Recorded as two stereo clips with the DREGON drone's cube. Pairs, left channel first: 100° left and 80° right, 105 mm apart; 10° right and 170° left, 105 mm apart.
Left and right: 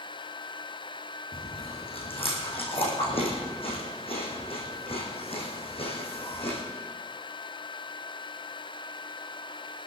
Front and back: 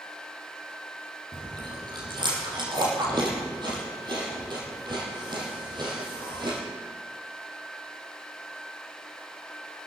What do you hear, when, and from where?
1.3 s chewing: 125° left, 4.5 m